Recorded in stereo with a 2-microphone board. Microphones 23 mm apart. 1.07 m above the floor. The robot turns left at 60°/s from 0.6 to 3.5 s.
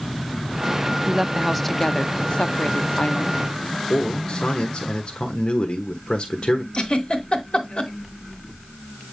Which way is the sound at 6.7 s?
45° left (ahead or behind).